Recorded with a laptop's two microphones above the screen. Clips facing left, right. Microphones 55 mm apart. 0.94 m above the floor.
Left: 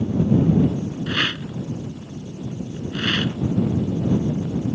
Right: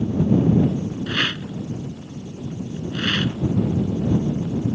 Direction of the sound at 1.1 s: 10° left (ahead or behind).